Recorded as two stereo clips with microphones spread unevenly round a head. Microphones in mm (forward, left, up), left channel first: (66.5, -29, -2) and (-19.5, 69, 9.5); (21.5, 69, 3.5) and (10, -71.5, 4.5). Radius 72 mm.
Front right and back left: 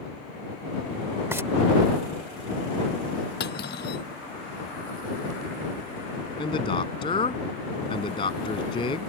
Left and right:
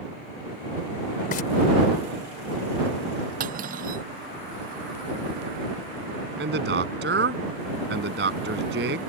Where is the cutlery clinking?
70° right.